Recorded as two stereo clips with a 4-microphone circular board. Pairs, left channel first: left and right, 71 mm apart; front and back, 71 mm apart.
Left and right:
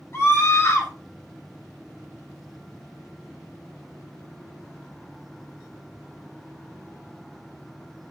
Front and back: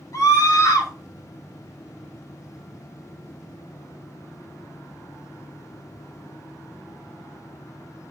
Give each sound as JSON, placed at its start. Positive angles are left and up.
{"t": 0.1, "sound": "a scream", "azimuth_deg": 40, "distance_m": 3.5}